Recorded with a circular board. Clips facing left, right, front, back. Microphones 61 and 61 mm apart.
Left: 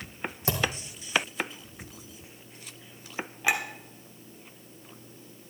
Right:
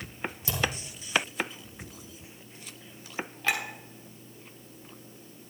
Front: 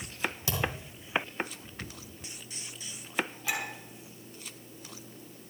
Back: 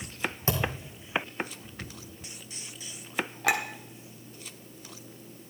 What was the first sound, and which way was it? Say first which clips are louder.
A thud: left 2 dB, back 4 dB; 125° left.